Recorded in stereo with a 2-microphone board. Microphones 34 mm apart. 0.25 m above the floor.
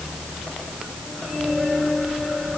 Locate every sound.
Only background noise.